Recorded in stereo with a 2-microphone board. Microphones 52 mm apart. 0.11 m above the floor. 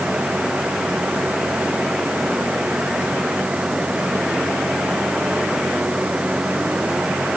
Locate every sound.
Only background noise.